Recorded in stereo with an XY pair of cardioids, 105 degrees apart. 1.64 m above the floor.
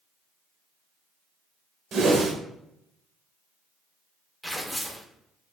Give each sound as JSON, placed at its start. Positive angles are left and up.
{"t": 1.9, "sound": "a whoosh", "azimuth_deg": -60, "distance_m": 0.7}
{"t": 4.4, "sound": "tearing paper", "azimuth_deg": 0, "distance_m": 0.5}